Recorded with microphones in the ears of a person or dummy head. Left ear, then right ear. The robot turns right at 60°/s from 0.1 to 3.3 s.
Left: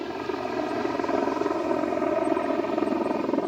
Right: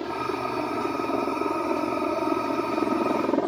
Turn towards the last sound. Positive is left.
turn(degrees=0)  # may be behind; listen again after turning